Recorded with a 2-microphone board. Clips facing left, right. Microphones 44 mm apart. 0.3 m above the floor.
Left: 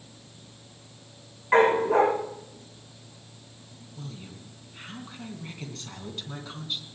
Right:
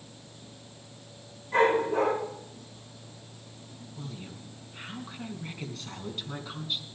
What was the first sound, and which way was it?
A dog barking, 70° left (ahead or behind).